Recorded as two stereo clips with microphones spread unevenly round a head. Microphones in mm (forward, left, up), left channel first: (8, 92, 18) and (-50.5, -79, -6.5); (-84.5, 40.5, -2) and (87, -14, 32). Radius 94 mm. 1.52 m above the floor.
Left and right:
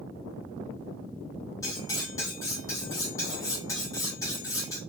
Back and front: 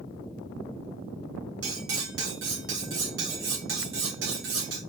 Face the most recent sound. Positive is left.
turn(degrees=0)